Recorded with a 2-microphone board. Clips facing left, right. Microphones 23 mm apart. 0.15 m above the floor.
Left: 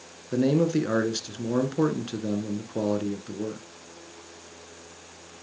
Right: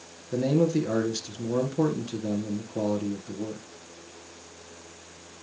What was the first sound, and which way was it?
A man speaking, 35° left (ahead or behind).